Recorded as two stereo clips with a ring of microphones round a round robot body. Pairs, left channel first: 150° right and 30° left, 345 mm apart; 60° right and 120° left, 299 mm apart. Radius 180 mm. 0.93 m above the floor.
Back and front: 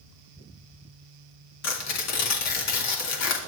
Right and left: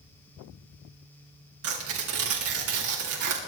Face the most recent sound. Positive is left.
turn(degrees=165)